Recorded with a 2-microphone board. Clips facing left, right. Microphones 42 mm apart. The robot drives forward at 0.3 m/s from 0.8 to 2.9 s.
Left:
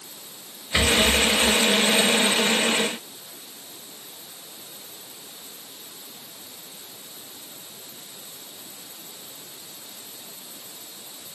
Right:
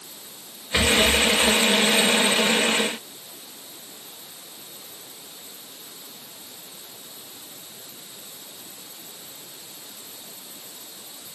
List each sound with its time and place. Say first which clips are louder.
0.7 s a rattle: right 1 dB; 30° right (ahead or behind), 1.5 m; by 1.6 s 25° right (ahead or behind), 1.7 m